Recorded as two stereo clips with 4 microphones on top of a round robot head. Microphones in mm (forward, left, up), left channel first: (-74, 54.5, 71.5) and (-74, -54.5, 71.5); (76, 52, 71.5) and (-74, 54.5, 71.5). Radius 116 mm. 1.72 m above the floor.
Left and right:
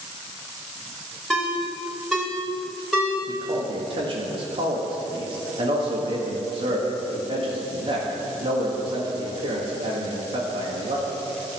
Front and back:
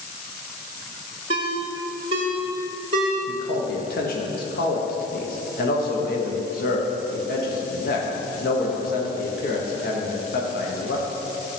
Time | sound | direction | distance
1.3 | a ringtone | 175° left | 1.2 m
3.3 | a man speaking | 35° right | 1.6 m